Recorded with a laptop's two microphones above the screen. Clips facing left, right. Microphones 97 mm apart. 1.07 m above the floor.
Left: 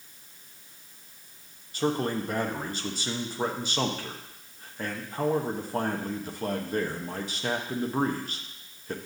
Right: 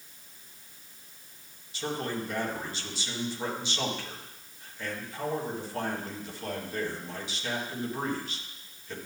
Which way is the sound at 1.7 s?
45° left (ahead or behind).